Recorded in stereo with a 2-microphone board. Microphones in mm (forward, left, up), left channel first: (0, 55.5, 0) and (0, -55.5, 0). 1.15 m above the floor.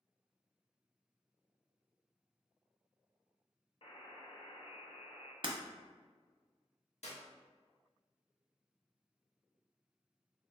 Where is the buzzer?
55° left (ahead or behind), 0.7 m.